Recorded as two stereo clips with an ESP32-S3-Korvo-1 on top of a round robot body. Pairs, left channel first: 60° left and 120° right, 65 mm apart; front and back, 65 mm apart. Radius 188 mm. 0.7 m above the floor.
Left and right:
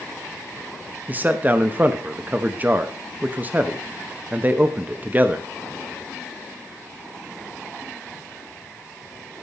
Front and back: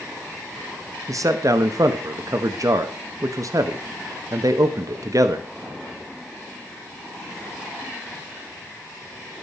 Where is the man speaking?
175° right, 1.2 m.